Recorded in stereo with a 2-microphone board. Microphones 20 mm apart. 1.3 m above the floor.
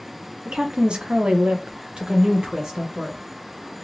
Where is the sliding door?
No sliding door in this recording.